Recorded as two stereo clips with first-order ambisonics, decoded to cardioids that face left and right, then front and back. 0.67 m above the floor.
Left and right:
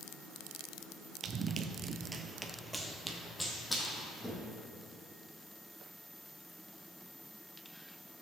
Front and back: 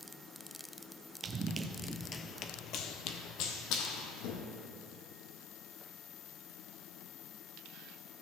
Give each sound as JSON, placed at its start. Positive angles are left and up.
{"t": 1.2, "sound": "running footsteps", "azimuth_deg": -135, "distance_m": 0.7}